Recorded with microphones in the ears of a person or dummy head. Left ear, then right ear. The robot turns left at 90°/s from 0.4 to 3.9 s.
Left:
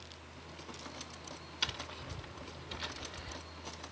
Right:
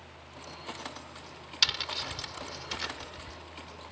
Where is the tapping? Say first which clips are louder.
Right 11 dB; 35° right; by 3.4 s 165° left.